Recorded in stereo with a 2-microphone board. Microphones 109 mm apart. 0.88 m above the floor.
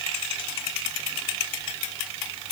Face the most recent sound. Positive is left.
No sound to turn to.